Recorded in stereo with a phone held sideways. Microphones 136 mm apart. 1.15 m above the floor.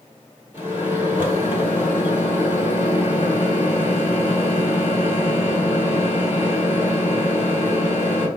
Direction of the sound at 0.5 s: 20° right (ahead or behind).